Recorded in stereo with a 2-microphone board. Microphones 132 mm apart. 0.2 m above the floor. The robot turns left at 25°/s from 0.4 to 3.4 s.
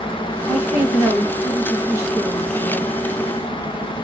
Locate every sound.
0.5 s a woman speaking: 5° right (ahead or behind), 1.4 m; by 3.0 s 25° right (ahead or behind), 1.4 m